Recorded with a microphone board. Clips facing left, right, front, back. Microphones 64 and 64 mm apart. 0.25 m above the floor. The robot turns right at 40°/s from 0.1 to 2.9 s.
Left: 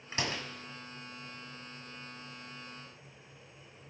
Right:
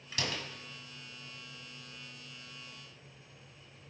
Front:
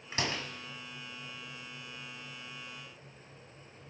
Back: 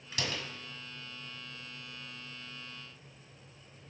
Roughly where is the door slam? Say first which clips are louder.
Left 2 dB, front 2 dB; ahead left.